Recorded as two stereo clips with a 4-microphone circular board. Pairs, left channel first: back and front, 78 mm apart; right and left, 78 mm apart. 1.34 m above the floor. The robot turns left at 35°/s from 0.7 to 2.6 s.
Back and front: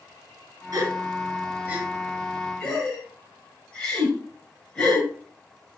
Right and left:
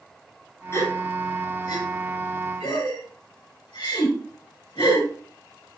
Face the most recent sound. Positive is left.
turn(degrees=-100)